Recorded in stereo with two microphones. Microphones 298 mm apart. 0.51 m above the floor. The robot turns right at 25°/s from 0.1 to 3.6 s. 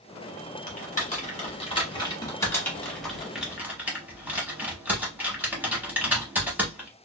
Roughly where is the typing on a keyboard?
Left.